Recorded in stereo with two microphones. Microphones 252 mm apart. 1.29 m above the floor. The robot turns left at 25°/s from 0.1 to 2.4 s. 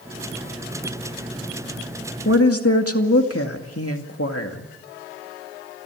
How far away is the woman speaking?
About 2 m.